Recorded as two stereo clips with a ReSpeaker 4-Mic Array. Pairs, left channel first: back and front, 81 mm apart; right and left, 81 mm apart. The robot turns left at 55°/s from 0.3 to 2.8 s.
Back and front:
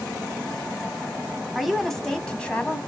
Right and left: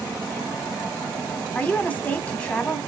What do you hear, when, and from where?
1.6 s a woman speaking: 85° right, 1.0 m; by 2.8 s 150° right, 1.0 m